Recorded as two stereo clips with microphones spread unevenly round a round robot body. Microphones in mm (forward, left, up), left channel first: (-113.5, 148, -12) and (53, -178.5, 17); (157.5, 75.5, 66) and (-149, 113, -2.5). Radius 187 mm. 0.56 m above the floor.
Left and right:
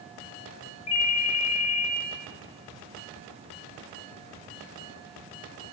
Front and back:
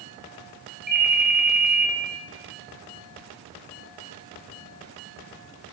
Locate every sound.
0.9 s a ringtone: 120° left, 2.5 m